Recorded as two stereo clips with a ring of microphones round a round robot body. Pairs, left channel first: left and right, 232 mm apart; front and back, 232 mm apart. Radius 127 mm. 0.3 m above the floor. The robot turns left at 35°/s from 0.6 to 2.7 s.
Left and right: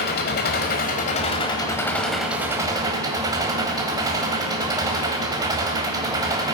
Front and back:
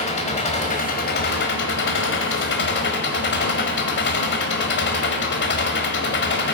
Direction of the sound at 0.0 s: 55° left.